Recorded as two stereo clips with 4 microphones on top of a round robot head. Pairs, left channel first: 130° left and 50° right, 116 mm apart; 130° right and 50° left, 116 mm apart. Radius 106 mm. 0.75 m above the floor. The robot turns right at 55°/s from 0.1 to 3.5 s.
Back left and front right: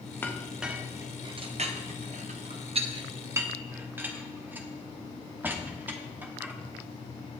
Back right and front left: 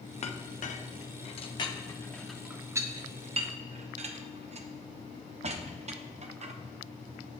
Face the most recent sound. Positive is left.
turn(degrees=25)